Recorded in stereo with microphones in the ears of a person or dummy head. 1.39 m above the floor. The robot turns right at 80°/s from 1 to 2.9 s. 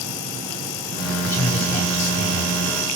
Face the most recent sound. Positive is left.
turn(degrees=135)